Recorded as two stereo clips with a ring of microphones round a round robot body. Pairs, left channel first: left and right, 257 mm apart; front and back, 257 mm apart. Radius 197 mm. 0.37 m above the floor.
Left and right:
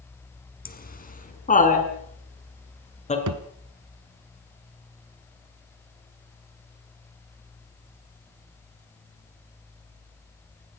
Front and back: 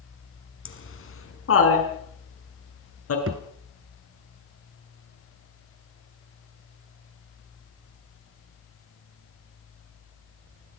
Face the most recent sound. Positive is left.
turn(degrees=-125)